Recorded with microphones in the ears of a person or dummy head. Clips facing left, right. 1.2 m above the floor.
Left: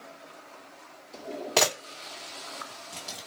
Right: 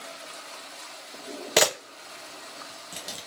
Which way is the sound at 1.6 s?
20° right (ahead or behind).